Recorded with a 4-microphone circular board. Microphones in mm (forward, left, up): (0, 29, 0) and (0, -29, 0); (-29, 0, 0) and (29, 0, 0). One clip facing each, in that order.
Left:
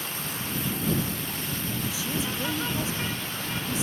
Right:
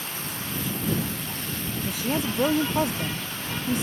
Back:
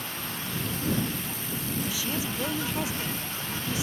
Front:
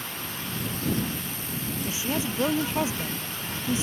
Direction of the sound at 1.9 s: 65° right.